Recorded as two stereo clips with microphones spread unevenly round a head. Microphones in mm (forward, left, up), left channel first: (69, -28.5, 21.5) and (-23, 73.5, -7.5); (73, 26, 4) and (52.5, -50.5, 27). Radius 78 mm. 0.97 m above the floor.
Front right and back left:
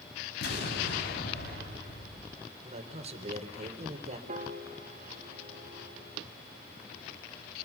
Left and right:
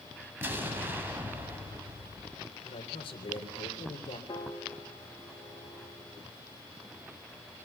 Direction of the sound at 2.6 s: 85° left.